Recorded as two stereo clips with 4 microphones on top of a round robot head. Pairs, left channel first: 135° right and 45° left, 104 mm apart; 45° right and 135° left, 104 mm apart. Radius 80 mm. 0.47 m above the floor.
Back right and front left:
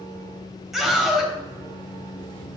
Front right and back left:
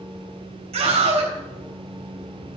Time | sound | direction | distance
0.7 | a scream | 135° left | 3.5 m